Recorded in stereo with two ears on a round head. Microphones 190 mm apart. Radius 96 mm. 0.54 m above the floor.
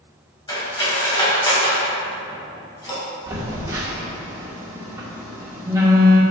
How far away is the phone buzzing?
About 1.4 m.